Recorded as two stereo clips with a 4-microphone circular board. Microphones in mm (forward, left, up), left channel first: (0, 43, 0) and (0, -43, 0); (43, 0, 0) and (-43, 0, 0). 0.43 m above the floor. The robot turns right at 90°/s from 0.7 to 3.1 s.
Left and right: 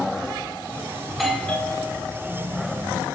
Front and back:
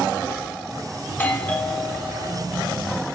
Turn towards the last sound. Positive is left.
turn(degrees=175)